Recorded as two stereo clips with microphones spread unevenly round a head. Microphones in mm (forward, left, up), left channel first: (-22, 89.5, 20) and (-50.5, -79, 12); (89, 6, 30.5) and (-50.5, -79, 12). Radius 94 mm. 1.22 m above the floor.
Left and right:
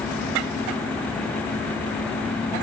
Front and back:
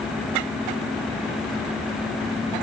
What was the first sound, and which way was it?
Only background noise.